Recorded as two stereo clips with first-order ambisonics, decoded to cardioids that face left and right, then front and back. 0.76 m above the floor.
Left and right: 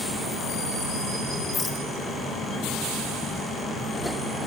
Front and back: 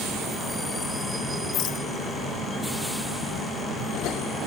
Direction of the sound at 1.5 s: 20° left.